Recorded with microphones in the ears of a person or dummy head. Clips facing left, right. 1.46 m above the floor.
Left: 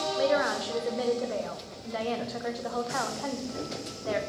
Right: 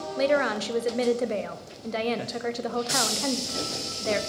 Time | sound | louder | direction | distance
0.2 | a woman speaking | right 3 dB | 40° right (ahead or behind) | 0.6 m